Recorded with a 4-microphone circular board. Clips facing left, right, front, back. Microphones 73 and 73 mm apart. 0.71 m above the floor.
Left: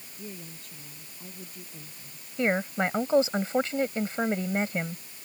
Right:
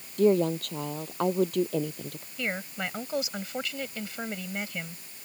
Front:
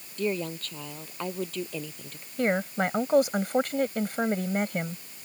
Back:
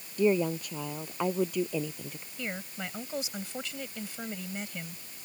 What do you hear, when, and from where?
0.2 s a woman speaking: 105° right
2.4 s a woman speaking: 35° left